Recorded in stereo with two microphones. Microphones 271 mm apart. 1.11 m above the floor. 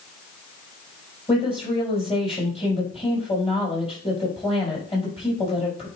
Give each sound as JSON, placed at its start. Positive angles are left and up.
{"t": 1.3, "sound": "a woman speaking", "side_deg": 20, "distance_m": 6.0}